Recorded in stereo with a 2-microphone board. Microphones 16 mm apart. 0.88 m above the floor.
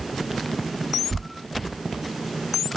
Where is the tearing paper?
50° right (ahead or behind), 1.1 m.